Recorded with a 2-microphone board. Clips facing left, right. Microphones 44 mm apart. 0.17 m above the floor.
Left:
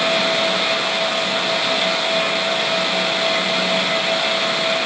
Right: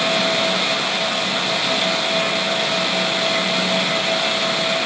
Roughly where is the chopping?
I don't hear chopping.